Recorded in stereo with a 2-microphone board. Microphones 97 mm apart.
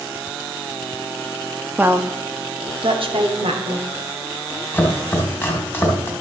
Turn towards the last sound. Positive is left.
turn(degrees=20)  # may be behind; listen again after turning